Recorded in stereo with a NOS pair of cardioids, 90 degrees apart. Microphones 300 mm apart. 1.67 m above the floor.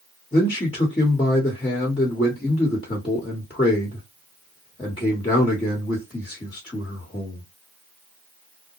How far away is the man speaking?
About 1.3 m.